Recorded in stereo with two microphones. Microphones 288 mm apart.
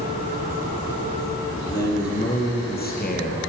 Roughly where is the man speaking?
Left.